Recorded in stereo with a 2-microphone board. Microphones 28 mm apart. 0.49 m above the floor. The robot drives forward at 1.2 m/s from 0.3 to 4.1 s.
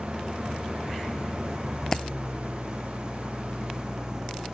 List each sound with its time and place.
0.0 s an engine running: 15° right (ahead or behind); by 4.5 s 20° right (ahead or behind)
1.9 s a dropped coin: 25° left (ahead or behind)